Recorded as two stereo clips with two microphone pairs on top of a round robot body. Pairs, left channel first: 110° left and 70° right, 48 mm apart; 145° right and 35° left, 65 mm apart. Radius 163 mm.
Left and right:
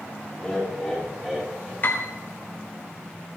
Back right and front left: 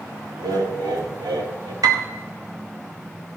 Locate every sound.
0.4 s laughter: 20° left, 4 m; by 1.7 s 10° left, 4 m
1.8 s a piano: 60° left, 1.7 m